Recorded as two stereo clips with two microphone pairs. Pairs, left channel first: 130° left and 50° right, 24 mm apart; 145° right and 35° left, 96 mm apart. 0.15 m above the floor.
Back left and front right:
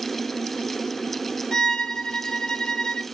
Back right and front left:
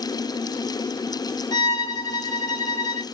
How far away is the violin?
About 0.5 m.